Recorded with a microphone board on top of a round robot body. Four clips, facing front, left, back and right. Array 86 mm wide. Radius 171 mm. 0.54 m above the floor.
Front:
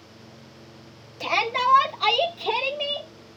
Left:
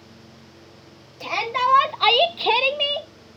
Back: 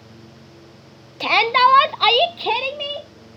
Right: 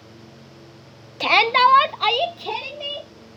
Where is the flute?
No flute in this recording.